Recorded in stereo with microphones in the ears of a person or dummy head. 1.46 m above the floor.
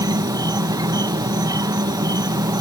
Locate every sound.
0.0 s an insect: 15° right (ahead or behind)